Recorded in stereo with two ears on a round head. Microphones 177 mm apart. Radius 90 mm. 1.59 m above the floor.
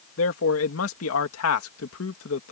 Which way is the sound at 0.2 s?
85° left.